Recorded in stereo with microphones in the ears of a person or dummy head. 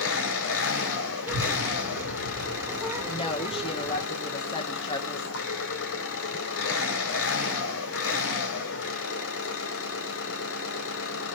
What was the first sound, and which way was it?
An engine running, 70° left (ahead or behind).